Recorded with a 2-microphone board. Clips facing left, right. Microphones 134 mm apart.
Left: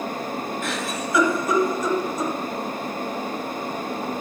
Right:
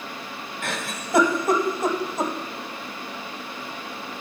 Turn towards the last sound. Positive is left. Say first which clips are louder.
# left 4 dB
turn(degrees=-55)  # may be behind; listen again after turning